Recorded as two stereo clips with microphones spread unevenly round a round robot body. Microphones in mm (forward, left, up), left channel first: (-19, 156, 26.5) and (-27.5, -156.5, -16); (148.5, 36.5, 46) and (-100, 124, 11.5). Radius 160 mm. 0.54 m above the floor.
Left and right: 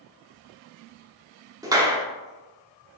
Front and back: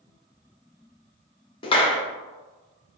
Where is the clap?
75° right, 0.6 m.